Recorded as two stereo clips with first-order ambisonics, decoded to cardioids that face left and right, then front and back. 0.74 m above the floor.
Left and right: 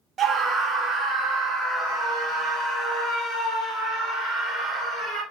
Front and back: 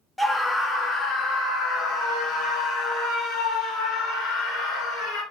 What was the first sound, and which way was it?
A scream, 85° right.